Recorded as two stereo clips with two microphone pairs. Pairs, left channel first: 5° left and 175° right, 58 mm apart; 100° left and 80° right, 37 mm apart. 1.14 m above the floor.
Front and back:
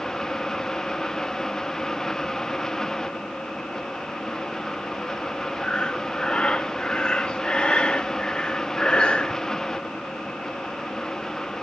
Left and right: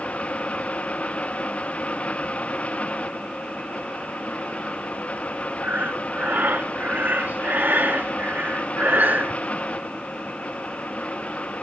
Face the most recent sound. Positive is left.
turn(degrees=-60)